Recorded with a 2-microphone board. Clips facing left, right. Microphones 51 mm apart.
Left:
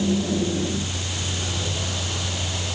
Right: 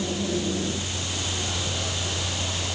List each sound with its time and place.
Only background noise.